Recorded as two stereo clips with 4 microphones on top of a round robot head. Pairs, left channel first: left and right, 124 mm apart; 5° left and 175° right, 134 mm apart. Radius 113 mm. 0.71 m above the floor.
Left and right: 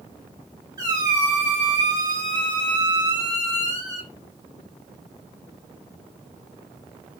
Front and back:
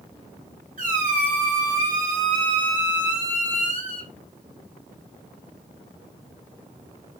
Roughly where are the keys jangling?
No keys jangling in this recording.